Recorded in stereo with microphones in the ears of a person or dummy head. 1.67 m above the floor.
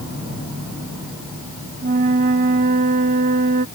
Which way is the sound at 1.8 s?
40° right (ahead or behind).